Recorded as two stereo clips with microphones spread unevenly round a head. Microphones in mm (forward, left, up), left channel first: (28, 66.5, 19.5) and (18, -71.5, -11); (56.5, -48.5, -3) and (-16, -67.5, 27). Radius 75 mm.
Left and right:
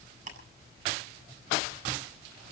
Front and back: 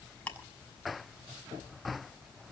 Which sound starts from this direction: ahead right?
Ticking, at 0.3 s.